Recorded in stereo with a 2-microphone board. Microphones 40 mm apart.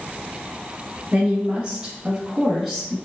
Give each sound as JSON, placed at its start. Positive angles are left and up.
{"t": 1.1, "sound": "a woman speaking", "side_deg": -25, "distance_m": 1.2}